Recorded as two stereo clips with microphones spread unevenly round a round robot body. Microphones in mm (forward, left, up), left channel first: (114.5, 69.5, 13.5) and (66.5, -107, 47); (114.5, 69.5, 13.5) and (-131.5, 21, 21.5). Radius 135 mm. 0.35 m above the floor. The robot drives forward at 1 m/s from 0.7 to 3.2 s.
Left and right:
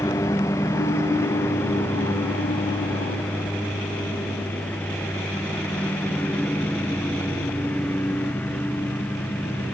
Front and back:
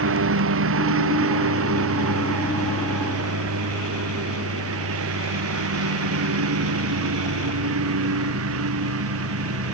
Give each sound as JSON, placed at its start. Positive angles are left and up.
{"t": 0.0, "sound": "a lawn mower", "azimuth_deg": 155}